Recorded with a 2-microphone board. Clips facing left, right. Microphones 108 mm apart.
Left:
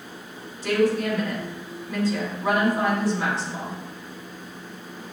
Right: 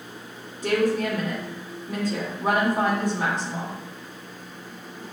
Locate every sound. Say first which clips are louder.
0.6 s a woman speaking: left 1 dB; 50° right (ahead or behind), 1.7 m